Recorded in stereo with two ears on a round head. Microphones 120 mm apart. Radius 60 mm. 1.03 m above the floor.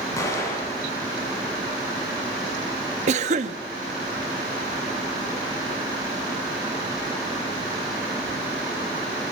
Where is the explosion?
20° left (ahead or behind), 7 m.